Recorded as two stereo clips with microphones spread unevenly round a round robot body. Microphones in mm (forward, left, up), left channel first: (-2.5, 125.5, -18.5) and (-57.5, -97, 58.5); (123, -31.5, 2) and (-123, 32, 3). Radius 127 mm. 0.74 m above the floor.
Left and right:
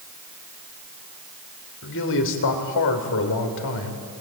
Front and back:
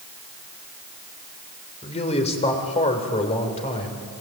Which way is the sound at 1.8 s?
50° left.